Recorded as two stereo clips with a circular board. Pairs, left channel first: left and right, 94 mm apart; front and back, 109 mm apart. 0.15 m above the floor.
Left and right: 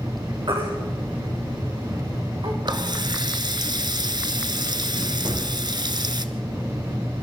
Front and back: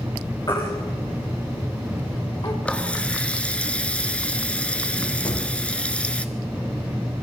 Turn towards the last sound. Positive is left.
turn(degrees=-40)